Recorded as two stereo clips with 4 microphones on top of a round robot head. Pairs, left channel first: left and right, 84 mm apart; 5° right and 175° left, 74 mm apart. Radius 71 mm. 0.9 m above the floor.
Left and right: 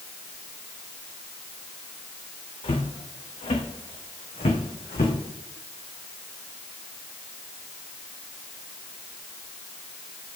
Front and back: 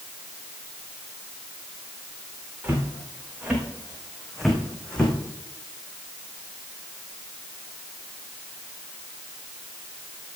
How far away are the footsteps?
About 3.5 m.